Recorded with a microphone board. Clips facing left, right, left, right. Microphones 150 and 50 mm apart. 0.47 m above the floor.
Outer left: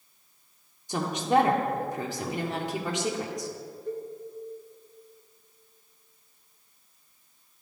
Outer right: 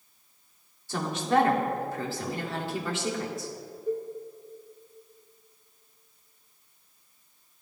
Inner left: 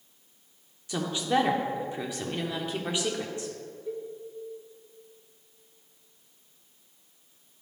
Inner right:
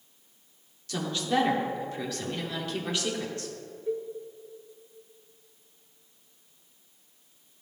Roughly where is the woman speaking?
Centre.